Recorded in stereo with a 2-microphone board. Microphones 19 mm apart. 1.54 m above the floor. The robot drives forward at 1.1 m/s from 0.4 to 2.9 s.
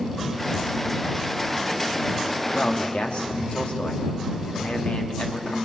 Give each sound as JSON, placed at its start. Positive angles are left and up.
{"t": 2.5, "sound": "a man speaking", "side_deg": 75, "distance_m": 3.5}